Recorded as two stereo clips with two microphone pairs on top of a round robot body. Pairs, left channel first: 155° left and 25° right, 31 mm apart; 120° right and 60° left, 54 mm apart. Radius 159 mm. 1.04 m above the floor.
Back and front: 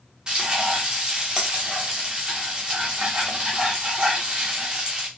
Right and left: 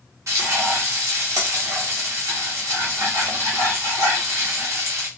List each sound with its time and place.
0.3 s frying: 40° left, 0.6 m